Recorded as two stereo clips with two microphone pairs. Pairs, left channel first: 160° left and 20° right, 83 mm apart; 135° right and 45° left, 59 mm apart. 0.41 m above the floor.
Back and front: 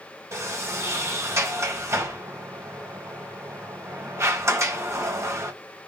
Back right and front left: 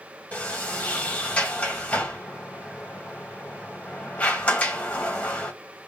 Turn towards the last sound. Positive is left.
turn(degrees=-75)